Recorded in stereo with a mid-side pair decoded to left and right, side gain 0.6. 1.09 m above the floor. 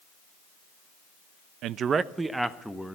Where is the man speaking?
65° right, 0.5 m; by 3.0 s straight ahead, 1.3 m.